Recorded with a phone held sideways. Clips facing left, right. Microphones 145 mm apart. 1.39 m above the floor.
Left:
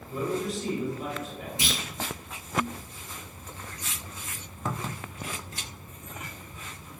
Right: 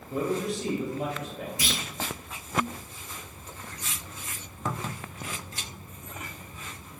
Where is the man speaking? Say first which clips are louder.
Right 1 dB; 65° right (ahead or behind), 0.9 m.